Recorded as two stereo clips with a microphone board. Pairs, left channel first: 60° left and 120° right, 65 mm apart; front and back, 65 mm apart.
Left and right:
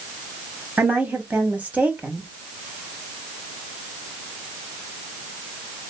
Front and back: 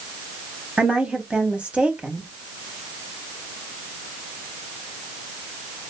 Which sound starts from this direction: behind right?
A woman speaking, at 0.8 s.